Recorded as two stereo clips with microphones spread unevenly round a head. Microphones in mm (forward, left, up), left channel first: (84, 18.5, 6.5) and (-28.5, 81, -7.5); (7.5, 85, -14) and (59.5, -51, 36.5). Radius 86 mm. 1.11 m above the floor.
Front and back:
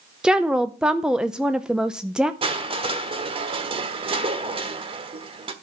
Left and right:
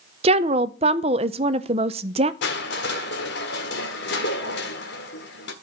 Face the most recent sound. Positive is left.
turn(degrees=105)